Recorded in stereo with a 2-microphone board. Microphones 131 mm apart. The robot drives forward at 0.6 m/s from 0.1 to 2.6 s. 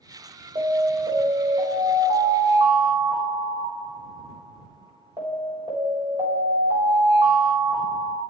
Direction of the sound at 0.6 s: 40° right (ahead or behind).